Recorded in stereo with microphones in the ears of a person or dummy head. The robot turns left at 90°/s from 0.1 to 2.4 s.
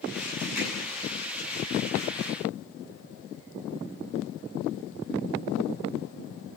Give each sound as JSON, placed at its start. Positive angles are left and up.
{"t": 0.6, "sound": "hammering", "side_deg": -5, "distance_m": 9.0}